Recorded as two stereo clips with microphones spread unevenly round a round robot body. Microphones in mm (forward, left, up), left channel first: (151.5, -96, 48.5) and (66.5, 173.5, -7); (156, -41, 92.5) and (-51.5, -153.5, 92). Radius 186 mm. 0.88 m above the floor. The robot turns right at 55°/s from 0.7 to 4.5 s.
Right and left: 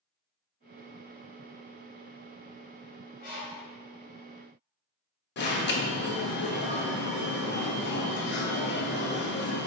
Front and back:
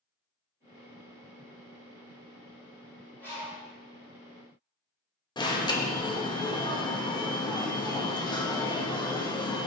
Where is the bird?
55° right, 1.8 m; by 3.7 s 30° right, 1.8 m.